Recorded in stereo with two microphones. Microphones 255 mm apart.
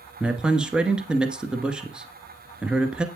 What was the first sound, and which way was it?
A man speaking, 5° right (ahead or behind).